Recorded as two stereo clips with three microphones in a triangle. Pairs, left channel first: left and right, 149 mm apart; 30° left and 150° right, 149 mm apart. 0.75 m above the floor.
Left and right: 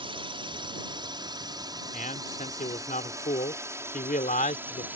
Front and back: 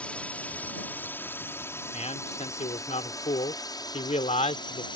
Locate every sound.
0.0 s a drone: 50° right; by 5.0 s 15° right
1.9 s a man speaking: 70° left